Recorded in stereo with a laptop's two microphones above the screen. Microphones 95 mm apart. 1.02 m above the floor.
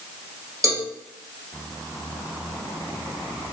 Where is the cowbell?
40° right (ahead or behind), 0.9 m.